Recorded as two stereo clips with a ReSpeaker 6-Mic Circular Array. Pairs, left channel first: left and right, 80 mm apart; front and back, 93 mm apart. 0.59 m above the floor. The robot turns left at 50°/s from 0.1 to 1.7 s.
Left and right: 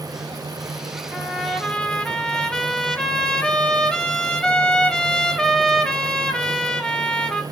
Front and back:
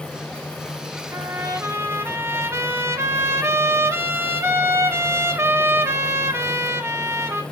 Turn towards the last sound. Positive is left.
turn(degrees=160)